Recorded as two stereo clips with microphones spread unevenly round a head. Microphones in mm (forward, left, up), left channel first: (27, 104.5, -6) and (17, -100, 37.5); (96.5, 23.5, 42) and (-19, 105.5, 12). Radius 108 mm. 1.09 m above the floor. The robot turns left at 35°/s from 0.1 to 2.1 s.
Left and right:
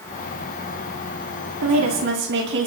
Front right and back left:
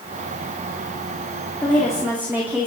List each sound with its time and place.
1.6 s a woman speaking: 115° right, 2.5 m; by 2.7 s 135° right, 2.5 m